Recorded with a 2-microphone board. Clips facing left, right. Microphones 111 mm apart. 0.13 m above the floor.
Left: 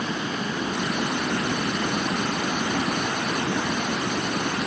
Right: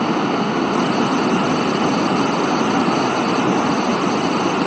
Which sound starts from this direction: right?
Running water, at 0.0 s.